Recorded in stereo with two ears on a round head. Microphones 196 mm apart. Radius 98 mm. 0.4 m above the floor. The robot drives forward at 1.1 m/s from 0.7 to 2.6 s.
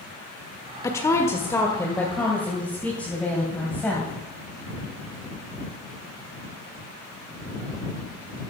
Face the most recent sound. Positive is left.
turn(degrees=5)  # may be behind; listen again after turning